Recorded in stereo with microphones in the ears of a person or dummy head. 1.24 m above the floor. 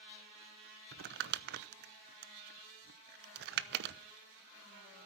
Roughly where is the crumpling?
Right.